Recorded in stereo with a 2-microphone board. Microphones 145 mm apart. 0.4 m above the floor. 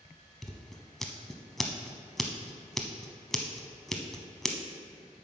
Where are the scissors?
Centre (ahead or behind), 0.8 m.